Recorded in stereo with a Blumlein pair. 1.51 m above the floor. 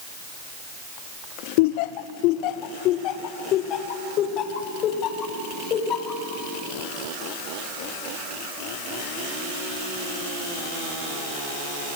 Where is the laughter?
50° left, 0.7 m; by 6.2 s 30° left, 3 m.